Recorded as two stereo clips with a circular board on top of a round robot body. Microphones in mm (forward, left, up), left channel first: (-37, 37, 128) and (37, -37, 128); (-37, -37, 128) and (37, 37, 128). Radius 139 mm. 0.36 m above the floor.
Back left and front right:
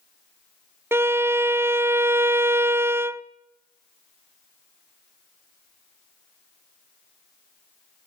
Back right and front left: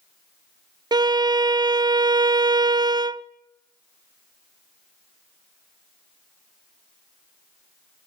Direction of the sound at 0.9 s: 15° left.